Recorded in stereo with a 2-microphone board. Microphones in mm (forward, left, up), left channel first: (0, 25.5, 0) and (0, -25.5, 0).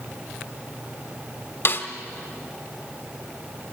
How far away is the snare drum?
About 1.3 m.